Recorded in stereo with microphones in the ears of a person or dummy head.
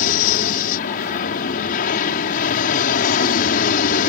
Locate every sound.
0.0 s an aircraft: 45° left (ahead or behind)